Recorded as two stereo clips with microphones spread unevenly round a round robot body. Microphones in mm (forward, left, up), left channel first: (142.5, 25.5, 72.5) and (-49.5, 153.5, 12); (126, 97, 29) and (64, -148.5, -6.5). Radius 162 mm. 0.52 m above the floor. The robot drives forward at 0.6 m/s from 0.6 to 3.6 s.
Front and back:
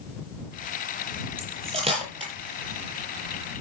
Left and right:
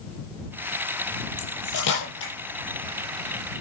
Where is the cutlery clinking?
80° left, 8 m; by 2.3 s 85° left, 8 m.